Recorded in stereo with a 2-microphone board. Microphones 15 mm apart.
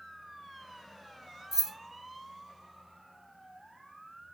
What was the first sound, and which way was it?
Keys jangling, 30° right (ahead or behind).